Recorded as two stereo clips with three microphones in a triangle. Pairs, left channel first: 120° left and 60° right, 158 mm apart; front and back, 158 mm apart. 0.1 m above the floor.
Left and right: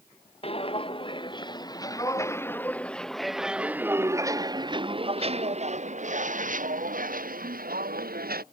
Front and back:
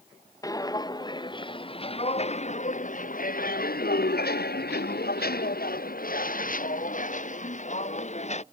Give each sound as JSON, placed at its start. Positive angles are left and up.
{"t": 0.4, "sound": "footsteps", "azimuth_deg": 70}